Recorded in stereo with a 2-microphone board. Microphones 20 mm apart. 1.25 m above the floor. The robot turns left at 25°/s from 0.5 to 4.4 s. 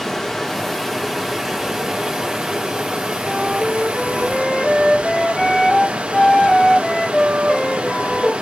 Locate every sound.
0.0 s running water: 5° left, 2.5 m; by 8.4 s 90° right, 2.5 m
3.2 s a flute: 5° left (ahead or behind), 4.5 m; by 8.3 s 35° left (ahead or behind), 4.5 m